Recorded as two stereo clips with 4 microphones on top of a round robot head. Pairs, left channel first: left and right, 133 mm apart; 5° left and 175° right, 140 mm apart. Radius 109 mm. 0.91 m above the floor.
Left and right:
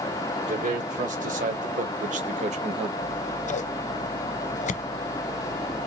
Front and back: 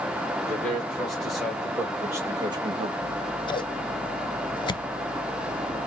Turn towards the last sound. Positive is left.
turn(degrees=65)